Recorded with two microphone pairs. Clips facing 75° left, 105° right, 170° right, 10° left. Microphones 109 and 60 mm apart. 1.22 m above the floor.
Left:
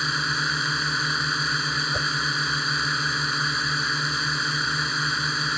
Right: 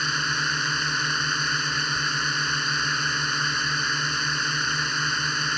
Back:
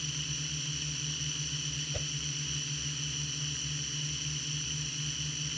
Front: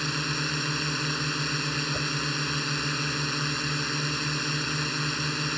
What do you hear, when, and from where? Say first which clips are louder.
0.0 s a drone: even, front 11 dB; 10° right
1.9 s a whoosh: left 1 dB, front 9 dB; 90° left